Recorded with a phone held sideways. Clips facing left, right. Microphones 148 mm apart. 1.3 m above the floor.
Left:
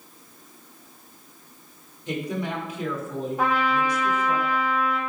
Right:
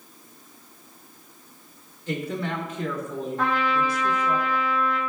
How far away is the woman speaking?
About 2.5 m.